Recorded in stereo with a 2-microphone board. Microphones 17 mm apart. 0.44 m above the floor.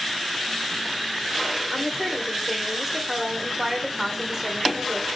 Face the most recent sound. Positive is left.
turn(degrees=-15)  # may be behind; listen again after turning